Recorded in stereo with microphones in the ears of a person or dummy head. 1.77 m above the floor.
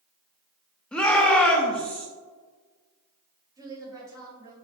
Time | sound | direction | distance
0.9 | a shout | 10° left (ahead or behind) | 0.7 m
3.6 | a woman speaking | 20° right (ahead or behind) | 1.3 m